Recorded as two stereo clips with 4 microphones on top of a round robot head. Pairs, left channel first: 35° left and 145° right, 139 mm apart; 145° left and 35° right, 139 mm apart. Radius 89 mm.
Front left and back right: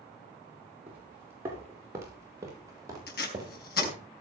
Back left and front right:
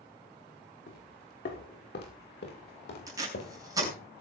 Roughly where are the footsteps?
Behind left.